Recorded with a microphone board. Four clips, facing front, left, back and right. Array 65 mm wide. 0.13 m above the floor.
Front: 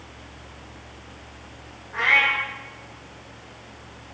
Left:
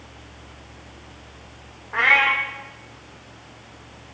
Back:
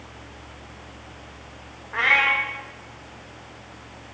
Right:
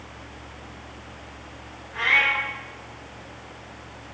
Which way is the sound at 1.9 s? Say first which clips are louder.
Left 4 dB, even; 115° left.